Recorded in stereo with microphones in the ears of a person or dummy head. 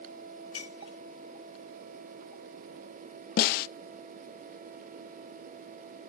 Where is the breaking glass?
25° left (ahead or behind), 8 m.